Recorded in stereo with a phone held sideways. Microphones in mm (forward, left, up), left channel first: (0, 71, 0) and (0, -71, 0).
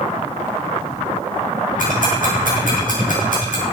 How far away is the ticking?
About 6.5 m.